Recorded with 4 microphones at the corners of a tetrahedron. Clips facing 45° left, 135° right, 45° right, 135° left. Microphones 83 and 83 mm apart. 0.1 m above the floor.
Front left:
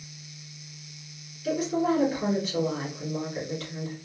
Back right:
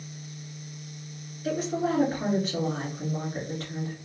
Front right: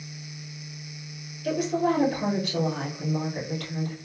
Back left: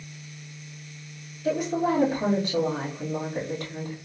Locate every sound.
1.4 s a woman speaking: 165° right, 2.0 m